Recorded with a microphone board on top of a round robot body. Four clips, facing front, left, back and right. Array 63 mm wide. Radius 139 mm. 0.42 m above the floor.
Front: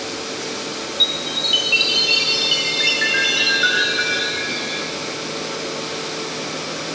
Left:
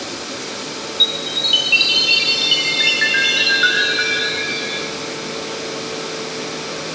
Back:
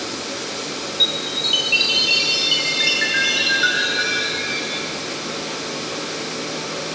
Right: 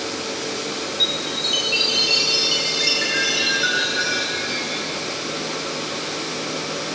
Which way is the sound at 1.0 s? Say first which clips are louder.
Left 1 dB, even; 85° left.